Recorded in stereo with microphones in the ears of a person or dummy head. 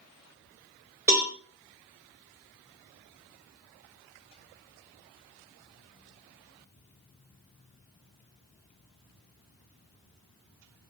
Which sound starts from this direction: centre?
A cowbell, at 1.1 s.